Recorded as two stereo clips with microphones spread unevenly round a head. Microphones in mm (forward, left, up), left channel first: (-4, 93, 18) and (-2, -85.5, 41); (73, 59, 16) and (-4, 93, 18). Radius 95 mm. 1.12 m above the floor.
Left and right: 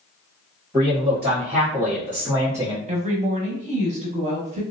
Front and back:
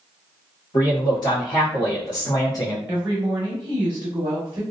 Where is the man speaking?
Straight ahead, 1.7 m; by 2.8 s 15° right, 0.6 m.